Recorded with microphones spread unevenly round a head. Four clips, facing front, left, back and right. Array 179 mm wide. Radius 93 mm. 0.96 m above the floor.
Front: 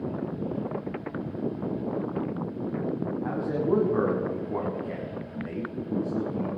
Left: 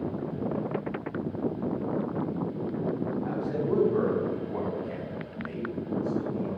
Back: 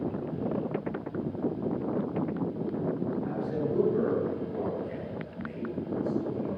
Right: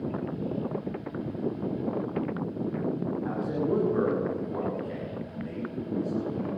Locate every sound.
3.2 s a man speaking: 15° left, 7.5 m